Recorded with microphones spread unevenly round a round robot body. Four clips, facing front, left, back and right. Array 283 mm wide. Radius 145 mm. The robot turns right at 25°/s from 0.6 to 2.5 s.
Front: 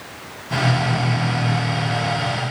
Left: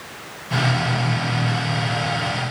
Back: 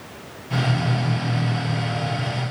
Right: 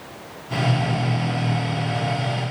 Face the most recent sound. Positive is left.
No sound to turn to.